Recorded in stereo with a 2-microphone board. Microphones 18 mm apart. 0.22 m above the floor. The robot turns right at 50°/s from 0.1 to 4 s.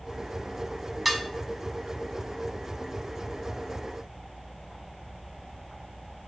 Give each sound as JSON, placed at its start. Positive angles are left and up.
{"t": 1.1, "sound": "dishes clattering", "side_deg": -15, "distance_m": 1.0}